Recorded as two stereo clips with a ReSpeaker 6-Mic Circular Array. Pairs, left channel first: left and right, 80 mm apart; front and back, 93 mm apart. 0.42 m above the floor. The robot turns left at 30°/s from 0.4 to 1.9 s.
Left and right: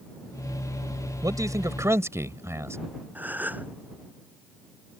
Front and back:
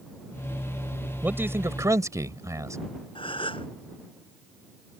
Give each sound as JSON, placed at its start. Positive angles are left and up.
{"t": 1.2, "sound": "a man speaking", "azimuth_deg": -115}
{"t": 3.1, "sound": "a gasp", "azimuth_deg": -20}